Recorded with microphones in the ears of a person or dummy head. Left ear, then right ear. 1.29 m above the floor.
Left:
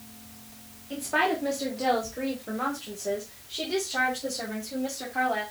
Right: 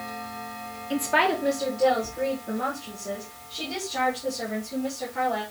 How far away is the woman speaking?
About 0.7 m.